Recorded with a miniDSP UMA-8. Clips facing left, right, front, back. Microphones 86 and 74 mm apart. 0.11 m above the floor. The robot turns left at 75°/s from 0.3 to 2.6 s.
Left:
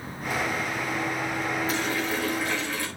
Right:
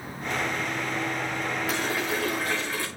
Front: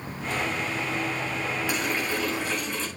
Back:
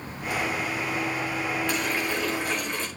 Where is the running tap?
80° right, 7 m; by 2.9 s 150° right, 7 m.